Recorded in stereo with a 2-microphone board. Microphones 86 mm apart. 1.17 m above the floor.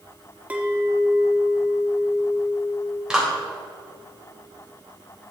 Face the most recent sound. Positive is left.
turn(degrees=-10)  # may be behind; listen again after turning